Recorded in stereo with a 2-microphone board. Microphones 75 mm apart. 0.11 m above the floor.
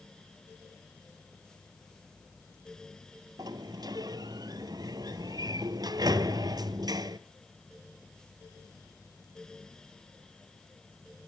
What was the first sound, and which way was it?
A sliding door, 60° right (ahead or behind).